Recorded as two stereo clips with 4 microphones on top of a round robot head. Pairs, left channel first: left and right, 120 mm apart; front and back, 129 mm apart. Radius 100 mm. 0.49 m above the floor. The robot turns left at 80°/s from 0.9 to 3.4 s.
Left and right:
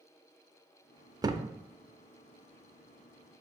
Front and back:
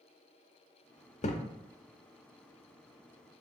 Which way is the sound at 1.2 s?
30° right.